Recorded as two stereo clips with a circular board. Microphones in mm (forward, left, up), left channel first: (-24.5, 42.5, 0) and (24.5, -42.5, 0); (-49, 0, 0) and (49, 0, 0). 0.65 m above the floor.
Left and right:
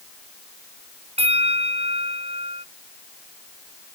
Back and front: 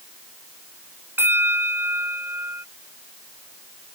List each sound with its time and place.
1.2 s a bell: 70° right